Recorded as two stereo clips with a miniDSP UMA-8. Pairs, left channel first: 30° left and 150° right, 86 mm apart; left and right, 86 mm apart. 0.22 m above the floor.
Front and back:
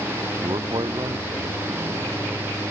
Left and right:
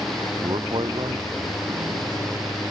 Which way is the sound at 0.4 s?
120° right.